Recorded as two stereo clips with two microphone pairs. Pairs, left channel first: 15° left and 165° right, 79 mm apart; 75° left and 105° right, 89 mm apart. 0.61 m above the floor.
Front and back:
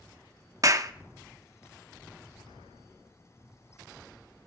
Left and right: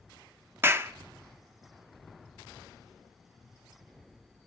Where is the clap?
155° right, 0.6 m.